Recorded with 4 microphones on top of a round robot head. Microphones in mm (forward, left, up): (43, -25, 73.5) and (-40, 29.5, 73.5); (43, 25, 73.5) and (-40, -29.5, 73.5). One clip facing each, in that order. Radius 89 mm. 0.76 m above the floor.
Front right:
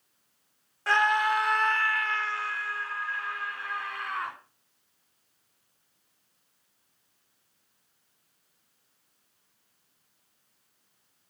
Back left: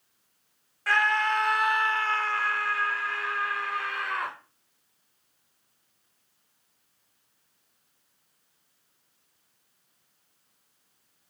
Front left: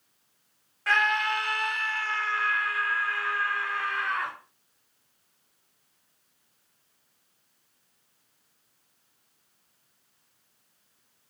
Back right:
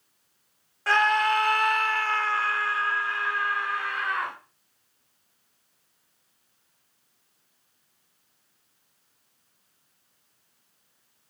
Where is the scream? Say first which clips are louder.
Front right 1 dB, back right 4 dB; 95° right, 2.0 m; by 4.3 s 135° left, 4 m.